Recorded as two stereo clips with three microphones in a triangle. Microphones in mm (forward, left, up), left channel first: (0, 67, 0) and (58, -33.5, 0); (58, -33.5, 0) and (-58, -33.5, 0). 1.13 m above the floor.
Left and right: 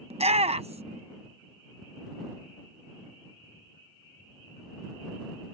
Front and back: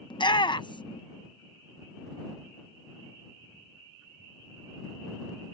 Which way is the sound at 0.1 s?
45° right.